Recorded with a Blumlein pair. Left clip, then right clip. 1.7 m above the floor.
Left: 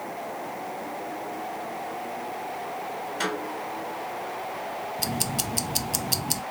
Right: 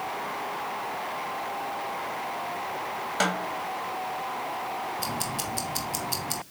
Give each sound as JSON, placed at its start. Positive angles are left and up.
{"t": 3.2, "sound": "a snare drum", "azimuth_deg": -40, "distance_m": 4.0}
{"t": 5.0, "sound": "ticking", "azimuth_deg": 20, "distance_m": 0.8}